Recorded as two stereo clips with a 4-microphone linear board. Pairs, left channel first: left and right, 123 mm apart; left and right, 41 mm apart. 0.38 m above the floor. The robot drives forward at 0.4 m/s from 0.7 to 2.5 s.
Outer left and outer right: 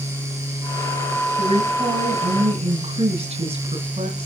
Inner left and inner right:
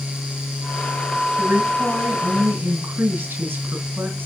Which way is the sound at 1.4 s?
60° right (ahead or behind).